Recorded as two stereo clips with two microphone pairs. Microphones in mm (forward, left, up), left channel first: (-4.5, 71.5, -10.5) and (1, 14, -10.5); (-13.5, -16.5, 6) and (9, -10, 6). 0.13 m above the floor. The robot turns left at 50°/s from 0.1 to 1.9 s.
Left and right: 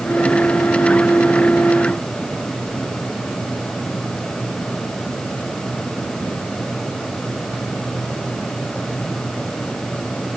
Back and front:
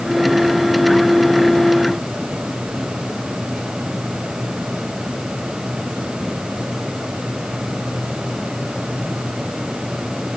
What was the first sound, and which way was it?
Only background noise.